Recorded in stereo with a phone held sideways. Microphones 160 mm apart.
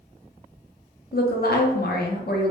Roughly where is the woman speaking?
Left.